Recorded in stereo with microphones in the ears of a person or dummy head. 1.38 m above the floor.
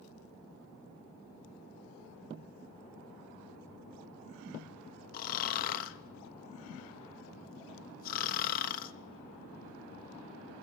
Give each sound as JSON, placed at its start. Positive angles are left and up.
{"t": 5.1, "sound": "snoring", "side_deg": 40, "distance_m": 0.6}